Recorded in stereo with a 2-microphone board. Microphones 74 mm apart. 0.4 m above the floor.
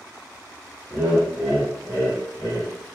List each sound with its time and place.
0.9 s laughter: 30° right (ahead or behind), 0.8 m; by 2.7 s 35° left (ahead or behind), 1.3 m